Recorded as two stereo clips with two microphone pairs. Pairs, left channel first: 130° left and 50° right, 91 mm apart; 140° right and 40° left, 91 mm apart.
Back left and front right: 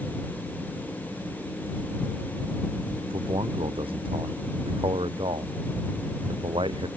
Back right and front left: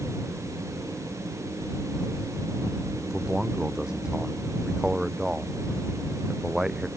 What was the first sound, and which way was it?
A man speaking, 45° right.